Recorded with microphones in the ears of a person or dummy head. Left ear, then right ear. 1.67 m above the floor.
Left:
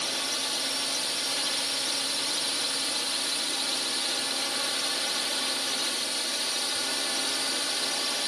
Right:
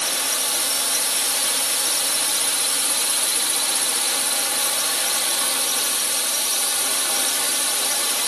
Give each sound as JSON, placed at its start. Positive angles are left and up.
{"t": 0.0, "sound": "a drone", "side_deg": -35}